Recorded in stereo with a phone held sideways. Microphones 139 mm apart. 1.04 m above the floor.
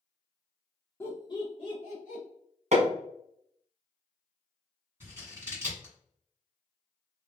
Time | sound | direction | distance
1.0 | laughter | 15° left (ahead or behind) | 0.8 m
2.7 | hammering | 55° right (ahead or behind) | 1.0 m
5.0 | scissors | 20° right (ahead or behind) | 1.6 m